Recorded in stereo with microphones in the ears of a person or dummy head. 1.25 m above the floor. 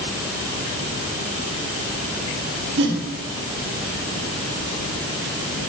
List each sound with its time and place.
2.8 s a whoosh: 75° right (ahead or behind), 3 m